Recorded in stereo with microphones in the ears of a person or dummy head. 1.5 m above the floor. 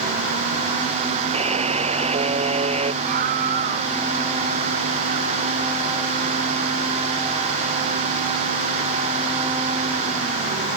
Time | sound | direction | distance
1.3 | a buzzer | 35° right (ahead or behind) | ?
3.0 | a scream | 55° right (ahead or behind) | ?